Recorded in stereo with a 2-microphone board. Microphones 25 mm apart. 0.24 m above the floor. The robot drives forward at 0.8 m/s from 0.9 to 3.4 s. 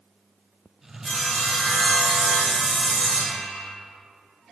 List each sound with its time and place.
1.0 s sawing: 20° left (ahead or behind), 1.4 m; by 3.7 s 15° left (ahead or behind), 1.7 m